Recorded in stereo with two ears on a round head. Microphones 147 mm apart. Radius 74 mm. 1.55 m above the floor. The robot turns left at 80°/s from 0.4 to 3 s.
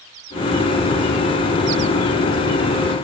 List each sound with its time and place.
Only background noise.